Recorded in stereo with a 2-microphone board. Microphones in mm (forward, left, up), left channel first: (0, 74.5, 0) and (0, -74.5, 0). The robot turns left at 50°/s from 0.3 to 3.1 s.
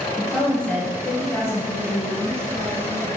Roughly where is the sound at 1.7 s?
Behind.